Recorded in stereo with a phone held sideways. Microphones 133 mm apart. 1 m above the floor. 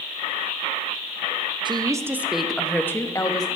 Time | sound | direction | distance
1.6 | a woman speaking | 35° right (ahead or behind) | 0.7 m